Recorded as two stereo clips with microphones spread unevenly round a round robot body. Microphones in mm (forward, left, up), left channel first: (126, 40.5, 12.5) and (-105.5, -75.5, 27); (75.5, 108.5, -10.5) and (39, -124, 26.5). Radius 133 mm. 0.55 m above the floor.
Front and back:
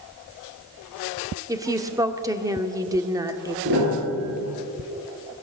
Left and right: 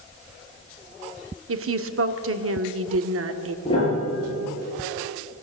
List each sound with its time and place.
1.5 s a woman speaking: 75° right, 1.5 m
3.6 s a piano: 155° left, 7 m